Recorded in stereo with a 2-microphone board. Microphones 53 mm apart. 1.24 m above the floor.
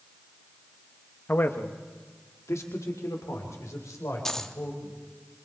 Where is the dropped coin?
10° left (ahead or behind), 0.9 m.